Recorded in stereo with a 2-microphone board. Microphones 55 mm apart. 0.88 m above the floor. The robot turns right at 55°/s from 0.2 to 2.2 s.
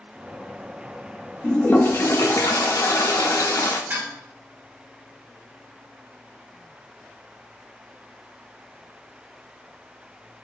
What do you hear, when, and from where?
1.4 s a toilet flushing: 25° left, 0.5 m; by 3.8 s 65° left, 0.5 m
3.9 s dishes clattering: 35° right (ahead or behind), 1.5 m